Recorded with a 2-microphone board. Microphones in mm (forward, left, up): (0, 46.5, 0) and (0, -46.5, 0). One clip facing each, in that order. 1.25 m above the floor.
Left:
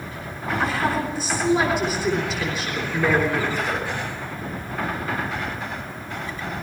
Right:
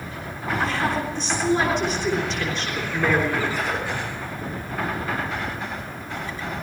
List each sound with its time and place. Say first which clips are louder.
0.6 s a woman speaking: left 1 dB; 5° left (ahead or behind), 3.5 m